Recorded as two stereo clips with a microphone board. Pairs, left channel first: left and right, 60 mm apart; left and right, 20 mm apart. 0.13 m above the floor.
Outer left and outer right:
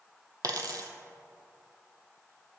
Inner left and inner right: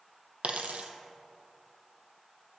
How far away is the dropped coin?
About 0.5 m.